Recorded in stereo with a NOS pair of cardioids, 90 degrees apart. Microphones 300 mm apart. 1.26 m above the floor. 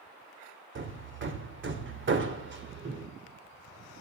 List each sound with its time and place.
0.8 s hammering: 40° right, 2 m